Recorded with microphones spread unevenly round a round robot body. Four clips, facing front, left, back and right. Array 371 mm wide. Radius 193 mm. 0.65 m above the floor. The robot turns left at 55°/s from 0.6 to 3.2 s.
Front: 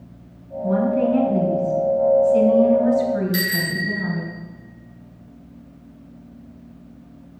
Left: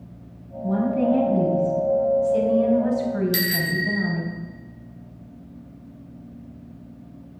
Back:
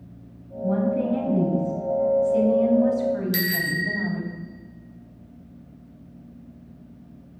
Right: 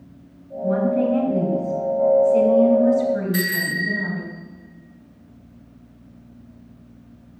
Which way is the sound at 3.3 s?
150° left.